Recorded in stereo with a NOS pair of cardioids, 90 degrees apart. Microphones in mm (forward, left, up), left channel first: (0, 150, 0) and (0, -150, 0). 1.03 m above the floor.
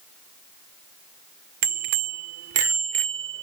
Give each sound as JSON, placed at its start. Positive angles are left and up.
{"t": 1.6, "sound": "a bicycle bell", "azimuth_deg": -70}